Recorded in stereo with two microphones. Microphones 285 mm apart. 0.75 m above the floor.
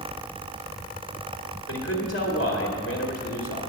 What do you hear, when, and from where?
1.7 s a man speaking: 50° left (ahead or behind), 2.0 m